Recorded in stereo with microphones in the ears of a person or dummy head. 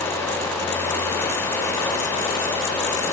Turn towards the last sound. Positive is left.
No sound to turn to.